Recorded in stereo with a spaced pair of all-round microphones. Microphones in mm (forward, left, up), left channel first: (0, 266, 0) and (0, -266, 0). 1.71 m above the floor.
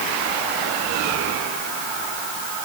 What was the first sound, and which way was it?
Only background noise.